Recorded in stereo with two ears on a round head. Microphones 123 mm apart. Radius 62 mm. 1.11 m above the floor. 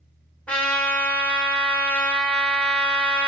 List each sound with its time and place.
0.5 s a trumpet: 10° left (ahead or behind), 1.1 m